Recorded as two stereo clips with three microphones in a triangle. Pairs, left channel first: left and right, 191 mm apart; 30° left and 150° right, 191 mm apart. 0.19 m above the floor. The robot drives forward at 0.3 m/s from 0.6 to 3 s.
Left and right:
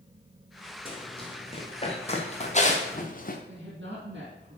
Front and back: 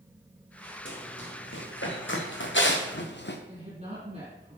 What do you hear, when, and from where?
0.8 s running footsteps: 30° left, 3.5 m; by 3.4 s 50° left, 1.4 m
3.5 s a woman speaking: 100° right, 5 m